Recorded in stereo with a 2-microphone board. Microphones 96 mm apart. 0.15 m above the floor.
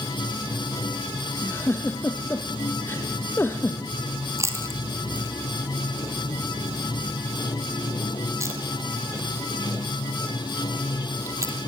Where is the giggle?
25° left (ahead or behind), 2.5 m.